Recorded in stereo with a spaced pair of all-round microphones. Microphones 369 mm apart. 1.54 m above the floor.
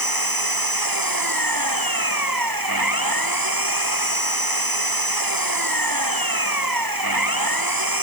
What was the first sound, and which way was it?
An engine running, 65° right (ahead or behind).